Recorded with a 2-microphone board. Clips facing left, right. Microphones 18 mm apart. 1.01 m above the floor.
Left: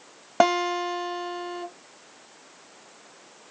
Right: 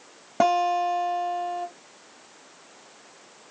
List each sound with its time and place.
0.4 s a guitar: 40° left (ahead or behind), 1.5 m